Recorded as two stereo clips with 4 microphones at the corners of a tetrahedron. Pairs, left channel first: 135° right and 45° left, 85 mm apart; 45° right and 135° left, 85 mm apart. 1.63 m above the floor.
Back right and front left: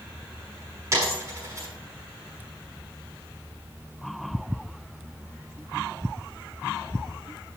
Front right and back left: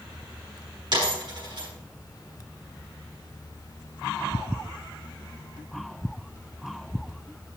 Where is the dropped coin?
105° left, 6 m.